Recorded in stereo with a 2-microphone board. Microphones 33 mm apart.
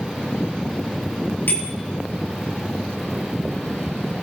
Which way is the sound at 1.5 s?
85° left.